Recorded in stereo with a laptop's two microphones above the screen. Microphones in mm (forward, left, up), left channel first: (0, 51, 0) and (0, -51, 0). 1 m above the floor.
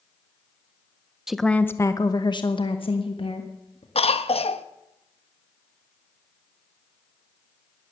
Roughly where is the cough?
Left.